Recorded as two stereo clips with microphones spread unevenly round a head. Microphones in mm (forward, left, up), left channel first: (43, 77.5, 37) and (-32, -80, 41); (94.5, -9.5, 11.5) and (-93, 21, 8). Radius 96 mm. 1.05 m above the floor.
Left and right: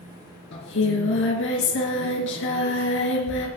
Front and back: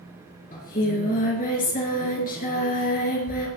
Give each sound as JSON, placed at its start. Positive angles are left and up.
{"t": 0.5, "sound": "singing", "azimuth_deg": 40, "distance_m": 4.0}